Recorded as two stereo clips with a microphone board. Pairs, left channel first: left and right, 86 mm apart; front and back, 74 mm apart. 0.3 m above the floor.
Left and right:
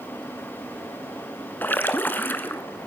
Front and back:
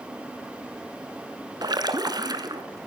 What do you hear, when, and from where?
1.6 s a splash: 155° left, 1.4 m